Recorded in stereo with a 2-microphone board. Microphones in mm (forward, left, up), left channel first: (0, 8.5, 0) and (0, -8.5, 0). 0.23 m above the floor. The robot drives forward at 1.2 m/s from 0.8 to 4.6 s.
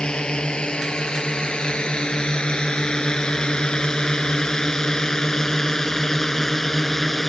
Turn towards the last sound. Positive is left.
turn(degrees=15)  # may be behind; listen again after turning